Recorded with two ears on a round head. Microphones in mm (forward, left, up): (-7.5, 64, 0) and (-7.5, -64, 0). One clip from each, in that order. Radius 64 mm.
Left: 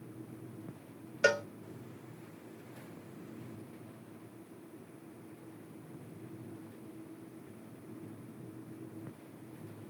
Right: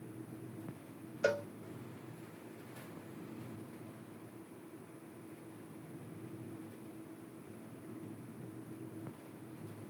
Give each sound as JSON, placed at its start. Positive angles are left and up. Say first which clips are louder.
{"t": 1.2, "sound": "a cowbell", "louder": "left 5 dB", "side_deg": 55}